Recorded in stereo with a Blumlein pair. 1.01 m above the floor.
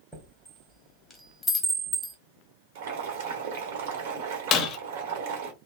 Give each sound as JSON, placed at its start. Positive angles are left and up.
{"t": 0.1, "sound": "a chime", "azimuth_deg": 5, "distance_m": 1.1}
{"t": 2.8, "sound": "boiling", "azimuth_deg": -50, "distance_m": 1.3}
{"t": 4.5, "sound": "breaking glass", "azimuth_deg": 30, "distance_m": 0.8}